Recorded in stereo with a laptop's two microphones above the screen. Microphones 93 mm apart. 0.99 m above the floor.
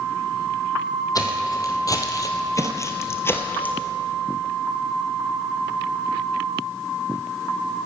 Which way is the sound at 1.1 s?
40° left (ahead or behind).